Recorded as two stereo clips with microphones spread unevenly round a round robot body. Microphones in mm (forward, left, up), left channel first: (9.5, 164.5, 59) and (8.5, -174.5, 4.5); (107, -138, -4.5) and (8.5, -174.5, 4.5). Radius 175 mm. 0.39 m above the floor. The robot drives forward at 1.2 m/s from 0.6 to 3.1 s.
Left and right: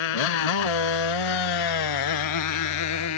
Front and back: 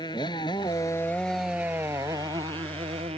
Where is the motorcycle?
95° left; by 3.2 s 135° left.